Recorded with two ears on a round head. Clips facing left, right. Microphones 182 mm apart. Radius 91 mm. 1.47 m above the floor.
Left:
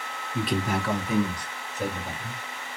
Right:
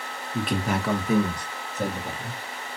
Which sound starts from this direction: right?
A man speaking, at 0.3 s.